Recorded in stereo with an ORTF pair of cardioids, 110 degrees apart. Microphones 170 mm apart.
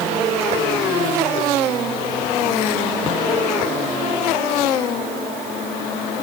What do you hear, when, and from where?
Only background noise.